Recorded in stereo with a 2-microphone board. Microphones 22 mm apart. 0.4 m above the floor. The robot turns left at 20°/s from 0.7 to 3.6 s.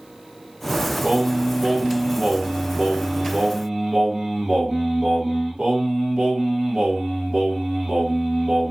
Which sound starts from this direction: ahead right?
Singing, at 1.0 s.